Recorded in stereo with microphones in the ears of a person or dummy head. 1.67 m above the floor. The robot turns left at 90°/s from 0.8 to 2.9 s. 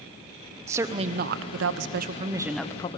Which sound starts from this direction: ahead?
A woman speaking, at 0.7 s.